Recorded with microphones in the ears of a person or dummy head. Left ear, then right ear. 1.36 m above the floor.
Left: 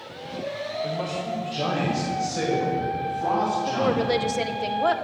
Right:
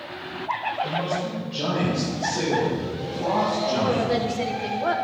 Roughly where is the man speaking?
Left.